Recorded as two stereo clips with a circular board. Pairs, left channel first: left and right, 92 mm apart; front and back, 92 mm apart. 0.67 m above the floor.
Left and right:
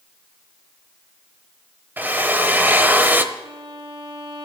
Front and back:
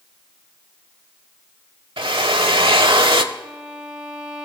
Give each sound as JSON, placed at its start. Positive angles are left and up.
{"t": 2.0, "sound": "a drill", "azimuth_deg": -160, "distance_m": 1.1}
{"t": 3.3, "sound": "a violin", "azimuth_deg": -95, "distance_m": 4.0}